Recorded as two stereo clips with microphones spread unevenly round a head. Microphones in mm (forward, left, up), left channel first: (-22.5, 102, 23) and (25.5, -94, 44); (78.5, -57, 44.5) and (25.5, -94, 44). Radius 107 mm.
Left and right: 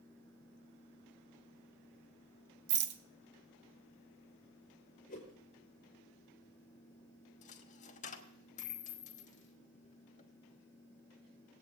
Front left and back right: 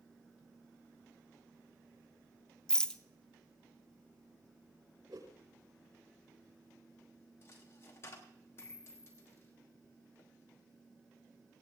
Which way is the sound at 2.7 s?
40° right.